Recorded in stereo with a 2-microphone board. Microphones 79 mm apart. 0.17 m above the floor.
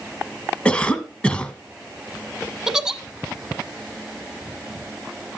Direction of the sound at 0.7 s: 15° left (ahead or behind).